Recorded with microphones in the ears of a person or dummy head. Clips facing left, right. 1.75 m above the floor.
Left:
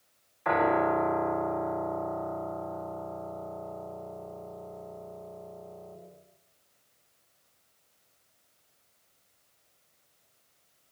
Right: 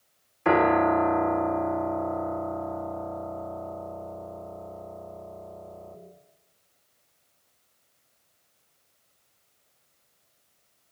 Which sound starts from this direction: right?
A piano, at 0.5 s.